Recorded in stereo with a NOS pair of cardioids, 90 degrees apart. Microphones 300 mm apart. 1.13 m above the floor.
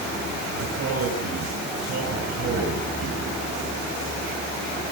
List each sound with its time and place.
0.6 s a man speaking: 60° right, 7 m